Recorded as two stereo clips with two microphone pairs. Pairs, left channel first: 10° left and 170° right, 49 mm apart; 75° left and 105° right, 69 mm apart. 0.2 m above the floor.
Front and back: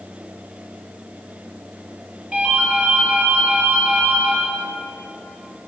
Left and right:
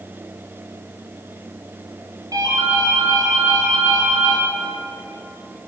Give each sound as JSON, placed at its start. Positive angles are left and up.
{"t": 2.3, "sound": "a ringtone", "azimuth_deg": -95, "distance_m": 2.0}